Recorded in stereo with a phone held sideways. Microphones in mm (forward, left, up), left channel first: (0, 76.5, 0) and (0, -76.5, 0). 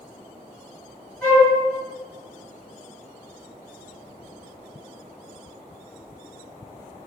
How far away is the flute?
About 1.9 m.